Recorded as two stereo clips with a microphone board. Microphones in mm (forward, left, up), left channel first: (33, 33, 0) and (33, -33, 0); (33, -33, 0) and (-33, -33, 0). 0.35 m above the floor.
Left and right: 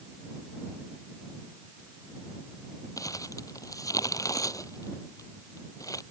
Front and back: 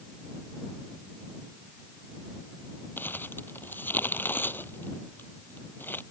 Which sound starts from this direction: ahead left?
Crumpling, at 3.0 s.